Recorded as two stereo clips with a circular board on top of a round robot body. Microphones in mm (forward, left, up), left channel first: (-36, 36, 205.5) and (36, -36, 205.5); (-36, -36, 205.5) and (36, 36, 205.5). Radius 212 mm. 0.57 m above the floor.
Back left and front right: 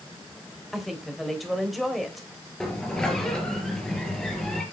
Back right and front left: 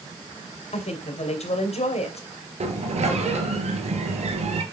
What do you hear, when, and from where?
0.7 s a woman speaking: 135° right, 3 m
2.6 s a sliding door: 50° left, 3 m